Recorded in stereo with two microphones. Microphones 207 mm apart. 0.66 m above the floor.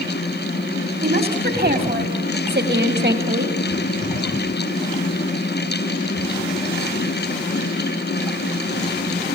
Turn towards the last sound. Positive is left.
turn(degrees=-60)  # may be behind; listen again after turning